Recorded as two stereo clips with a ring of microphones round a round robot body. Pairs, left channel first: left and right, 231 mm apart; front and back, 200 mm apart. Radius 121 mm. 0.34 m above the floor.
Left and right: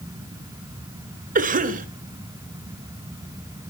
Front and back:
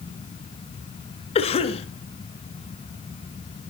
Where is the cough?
50° right, 1.8 m.